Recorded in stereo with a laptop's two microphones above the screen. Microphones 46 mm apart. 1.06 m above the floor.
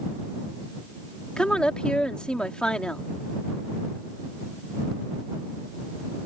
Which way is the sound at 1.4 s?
20° left (ahead or behind).